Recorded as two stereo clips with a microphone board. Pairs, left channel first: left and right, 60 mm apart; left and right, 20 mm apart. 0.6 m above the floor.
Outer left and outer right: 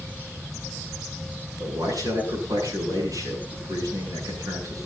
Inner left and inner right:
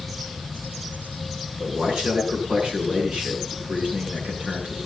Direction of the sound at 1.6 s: 80° right.